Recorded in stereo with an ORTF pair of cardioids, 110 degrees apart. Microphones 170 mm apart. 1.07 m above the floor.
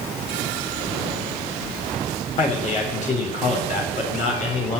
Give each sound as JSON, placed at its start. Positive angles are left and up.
{"t": 2.4, "sound": "a man speaking", "azimuth_deg": 45, "distance_m": 3.5}